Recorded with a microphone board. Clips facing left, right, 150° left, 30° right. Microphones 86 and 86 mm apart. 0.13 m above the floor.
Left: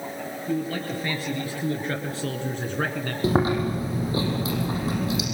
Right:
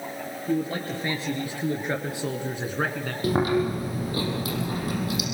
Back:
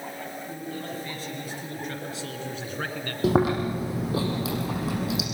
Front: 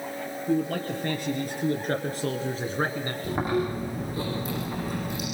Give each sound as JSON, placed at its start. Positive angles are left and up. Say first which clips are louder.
{"t": 0.5, "sound": "a man speaking", "louder": "right 1 dB, front 13 dB", "azimuth_deg": -25, "distance_m": 3.5}
{"t": 3.2, "sound": "chewing", "louder": "even, back 5 dB", "azimuth_deg": 155, "distance_m": 6.5}